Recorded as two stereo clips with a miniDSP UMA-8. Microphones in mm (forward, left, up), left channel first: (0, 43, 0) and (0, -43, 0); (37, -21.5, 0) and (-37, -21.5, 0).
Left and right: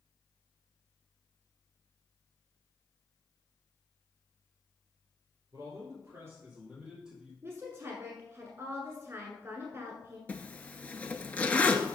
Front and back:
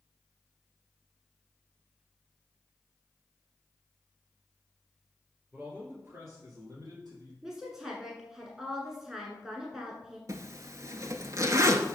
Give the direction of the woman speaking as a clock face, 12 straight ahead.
3 o'clock.